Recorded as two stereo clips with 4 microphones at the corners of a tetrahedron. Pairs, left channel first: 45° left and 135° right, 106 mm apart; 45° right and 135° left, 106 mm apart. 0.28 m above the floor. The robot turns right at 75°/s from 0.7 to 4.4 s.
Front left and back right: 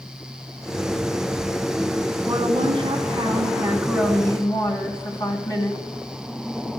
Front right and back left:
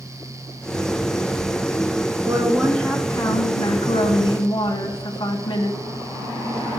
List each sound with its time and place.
2.2 s a woman speaking: 170° right, 3 m; by 5.8 s 5° right, 3 m